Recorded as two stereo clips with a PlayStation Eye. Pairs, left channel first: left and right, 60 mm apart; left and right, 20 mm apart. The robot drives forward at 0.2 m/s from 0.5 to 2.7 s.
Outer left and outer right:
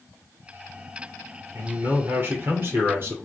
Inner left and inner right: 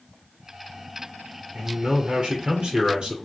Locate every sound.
1.5 s a man speaking: 45° right (ahead or behind), 2.5 m; by 3.1 s 50° right (ahead or behind), 2 m